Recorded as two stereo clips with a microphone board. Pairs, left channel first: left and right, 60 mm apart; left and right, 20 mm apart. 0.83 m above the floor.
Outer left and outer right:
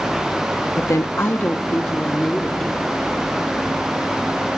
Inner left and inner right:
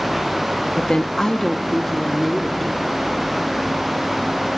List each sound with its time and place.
0.8 s a woman speaking: 60° left (ahead or behind), 0.8 m; by 2.9 s 5° left (ahead or behind), 1.9 m